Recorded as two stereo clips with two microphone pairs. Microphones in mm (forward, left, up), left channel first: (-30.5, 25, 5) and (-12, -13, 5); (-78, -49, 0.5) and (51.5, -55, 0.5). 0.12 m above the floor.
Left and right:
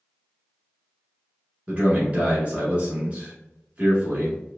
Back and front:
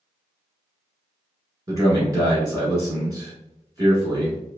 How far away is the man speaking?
About 1.2 m.